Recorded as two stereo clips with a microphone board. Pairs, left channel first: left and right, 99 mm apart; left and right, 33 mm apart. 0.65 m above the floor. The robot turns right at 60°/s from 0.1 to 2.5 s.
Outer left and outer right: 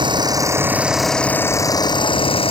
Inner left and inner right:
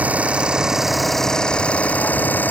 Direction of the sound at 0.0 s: 55° right.